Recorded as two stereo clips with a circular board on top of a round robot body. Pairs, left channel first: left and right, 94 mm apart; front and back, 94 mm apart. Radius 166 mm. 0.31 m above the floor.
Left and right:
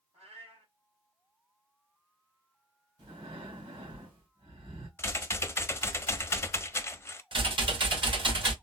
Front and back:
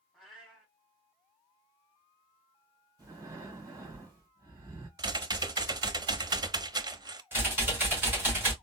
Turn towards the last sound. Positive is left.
turn(degrees=-115)